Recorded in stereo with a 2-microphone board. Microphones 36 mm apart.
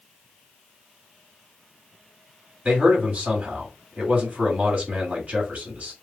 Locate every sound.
2.6 s a man speaking: 40° right (ahead or behind), 1.7 m